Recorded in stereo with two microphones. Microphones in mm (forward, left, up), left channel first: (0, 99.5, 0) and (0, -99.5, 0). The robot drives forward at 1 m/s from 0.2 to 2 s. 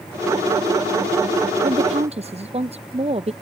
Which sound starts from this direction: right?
A woman speaking, at 1.6 s.